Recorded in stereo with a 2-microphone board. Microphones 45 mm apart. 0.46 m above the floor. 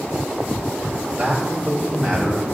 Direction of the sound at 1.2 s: 30° right (ahead or behind).